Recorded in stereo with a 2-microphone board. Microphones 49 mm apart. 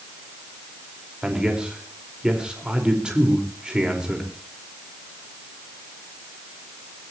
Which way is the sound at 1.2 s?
20° right (ahead or behind).